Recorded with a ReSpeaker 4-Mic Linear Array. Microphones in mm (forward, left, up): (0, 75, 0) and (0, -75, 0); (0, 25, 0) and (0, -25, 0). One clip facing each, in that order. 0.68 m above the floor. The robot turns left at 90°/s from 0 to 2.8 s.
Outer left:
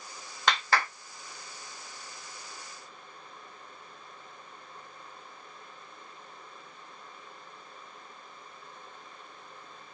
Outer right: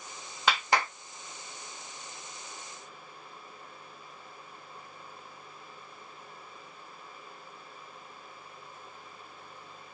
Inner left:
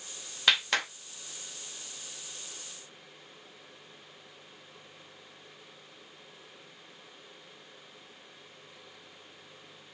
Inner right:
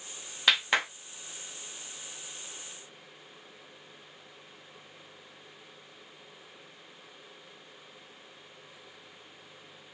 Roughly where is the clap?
Centre.